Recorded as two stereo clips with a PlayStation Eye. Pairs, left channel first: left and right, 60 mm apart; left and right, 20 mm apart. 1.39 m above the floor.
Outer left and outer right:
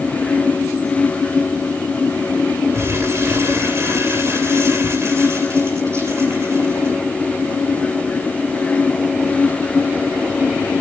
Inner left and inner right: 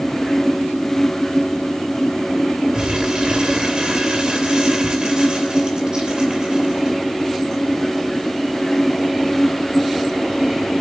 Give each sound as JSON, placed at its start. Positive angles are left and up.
{"t": 2.7, "sound": "crumpling", "side_deg": -50, "distance_m": 3.0}